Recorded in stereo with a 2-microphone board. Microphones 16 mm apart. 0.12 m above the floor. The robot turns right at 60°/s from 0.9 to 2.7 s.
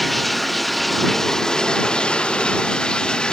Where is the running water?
15° left; by 3.3 s 125° left.